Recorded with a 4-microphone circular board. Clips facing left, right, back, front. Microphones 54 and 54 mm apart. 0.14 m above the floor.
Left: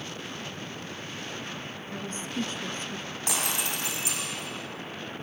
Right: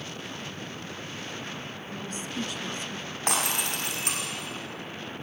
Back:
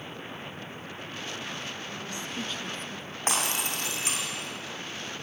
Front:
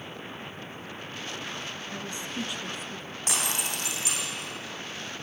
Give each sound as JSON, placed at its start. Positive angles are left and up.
{"t": 1.9, "sound": "a woman speaking", "azimuth_deg": 50, "distance_m": 2.0}
{"t": 3.3, "sound": "breaking glass", "azimuth_deg": -130, "distance_m": 5.0}